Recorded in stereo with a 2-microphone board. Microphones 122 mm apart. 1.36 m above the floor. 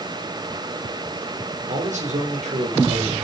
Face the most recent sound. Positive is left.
turn(degrees=-65)  # may be behind; listen again after turning